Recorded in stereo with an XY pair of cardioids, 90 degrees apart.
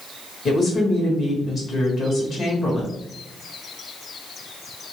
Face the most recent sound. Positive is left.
turn(degrees=55)